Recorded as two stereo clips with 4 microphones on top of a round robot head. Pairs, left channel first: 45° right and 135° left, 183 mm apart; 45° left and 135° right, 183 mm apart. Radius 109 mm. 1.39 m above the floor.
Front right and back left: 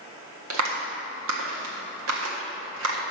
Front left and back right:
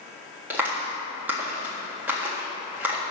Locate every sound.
0.5 s a clap: 145° left, 1.6 m